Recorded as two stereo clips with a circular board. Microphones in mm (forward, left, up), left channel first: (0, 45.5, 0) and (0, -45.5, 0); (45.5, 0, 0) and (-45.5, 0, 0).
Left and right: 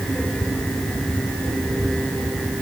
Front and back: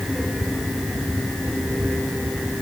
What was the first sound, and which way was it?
Only background noise.